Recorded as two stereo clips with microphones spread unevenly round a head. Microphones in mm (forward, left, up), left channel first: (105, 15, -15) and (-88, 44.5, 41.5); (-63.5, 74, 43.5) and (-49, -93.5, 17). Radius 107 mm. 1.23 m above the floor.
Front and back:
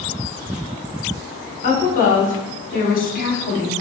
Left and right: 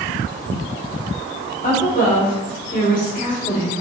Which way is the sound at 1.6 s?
40° left.